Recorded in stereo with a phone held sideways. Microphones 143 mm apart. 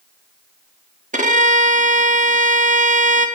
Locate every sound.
1.1 s a violin: 60° right (ahead or behind), 0.9 m